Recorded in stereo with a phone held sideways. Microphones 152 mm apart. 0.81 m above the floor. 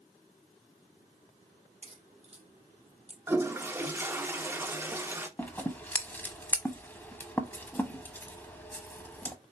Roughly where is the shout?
No shout in this recording.